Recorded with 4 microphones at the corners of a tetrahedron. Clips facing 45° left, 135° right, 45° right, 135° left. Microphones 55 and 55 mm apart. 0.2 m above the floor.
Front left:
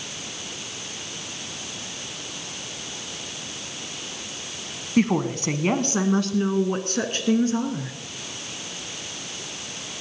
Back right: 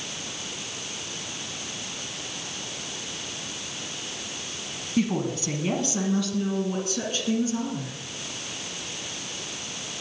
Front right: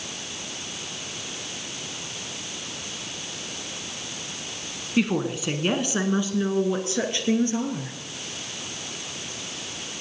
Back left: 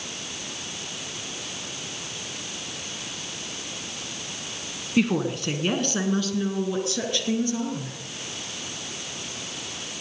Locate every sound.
5.0 s a woman speaking: 45° left, 1.5 m; by 8.0 s 10° left, 2.5 m